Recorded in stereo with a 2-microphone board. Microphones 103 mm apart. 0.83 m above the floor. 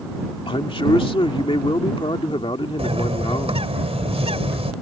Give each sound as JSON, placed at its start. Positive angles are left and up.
{"t": 0.5, "sound": "a man speaking", "side_deg": 60}
{"t": 2.8, "sound": "a bird", "side_deg": -85}